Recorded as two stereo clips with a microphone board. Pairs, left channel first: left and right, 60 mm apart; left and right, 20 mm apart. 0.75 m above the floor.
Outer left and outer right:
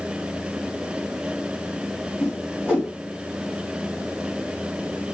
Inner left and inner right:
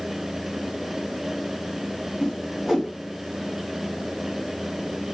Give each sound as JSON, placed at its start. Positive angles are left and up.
{"t": 2.2, "sound": "a whoosh", "side_deg": -15, "distance_m": 3.5}